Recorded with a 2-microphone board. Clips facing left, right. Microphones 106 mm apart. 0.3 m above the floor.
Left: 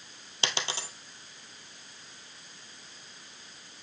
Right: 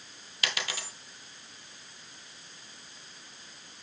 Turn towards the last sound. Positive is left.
turn(degrees=30)  # may be behind; listen again after turning